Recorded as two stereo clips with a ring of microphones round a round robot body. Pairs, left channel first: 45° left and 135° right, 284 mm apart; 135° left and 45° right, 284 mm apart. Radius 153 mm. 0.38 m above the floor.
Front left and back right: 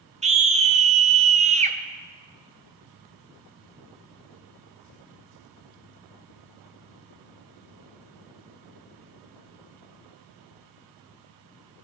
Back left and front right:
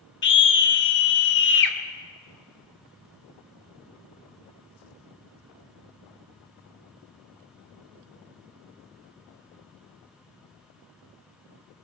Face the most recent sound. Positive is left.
turn(degrees=165)